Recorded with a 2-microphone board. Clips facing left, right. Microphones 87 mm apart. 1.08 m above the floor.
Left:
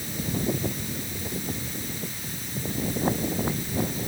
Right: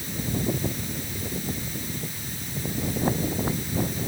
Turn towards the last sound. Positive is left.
No sound to turn to.